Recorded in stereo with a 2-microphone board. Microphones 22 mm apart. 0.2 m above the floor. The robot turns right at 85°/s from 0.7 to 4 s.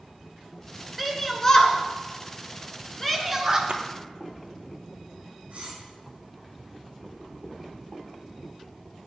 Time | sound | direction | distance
1.0 | a shout | 10° right (ahead or behind) | 2.5 m
3.7 | a splash | 55° right (ahead or behind) | 1.1 m
5.5 | cutlery clinking | 85° right | 6 m